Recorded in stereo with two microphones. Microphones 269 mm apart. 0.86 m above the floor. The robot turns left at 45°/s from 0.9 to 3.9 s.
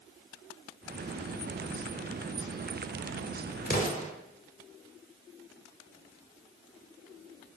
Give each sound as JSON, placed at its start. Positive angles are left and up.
{"t": 3.7, "sound": "an explosion", "side_deg": 35, "distance_m": 0.8}